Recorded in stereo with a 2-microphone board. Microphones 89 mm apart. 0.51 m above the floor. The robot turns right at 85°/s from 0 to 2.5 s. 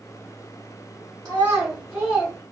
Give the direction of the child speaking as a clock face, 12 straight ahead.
2 o'clock.